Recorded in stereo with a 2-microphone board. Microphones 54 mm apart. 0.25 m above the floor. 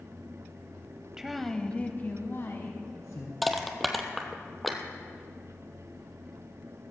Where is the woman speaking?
10° right (ahead or behind), 0.9 m; by 3.3 s 65° left (ahead or behind), 2 m.